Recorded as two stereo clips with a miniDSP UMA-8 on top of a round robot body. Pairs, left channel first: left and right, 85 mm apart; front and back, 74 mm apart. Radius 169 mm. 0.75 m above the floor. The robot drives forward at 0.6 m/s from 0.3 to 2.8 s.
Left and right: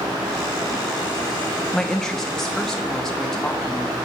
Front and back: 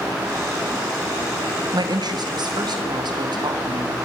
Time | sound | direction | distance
1.7 | a woman speaking | 175° left | 1.8 m